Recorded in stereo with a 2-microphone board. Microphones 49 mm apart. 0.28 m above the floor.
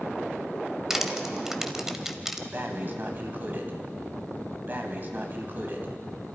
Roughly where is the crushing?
Centre.